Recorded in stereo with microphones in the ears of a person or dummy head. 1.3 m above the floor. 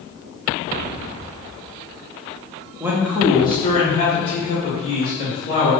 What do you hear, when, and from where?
2.8 s a man speaking: 10° right (ahead or behind), 0.6 m; by 5.7 s 55° left (ahead or behind), 2.5 m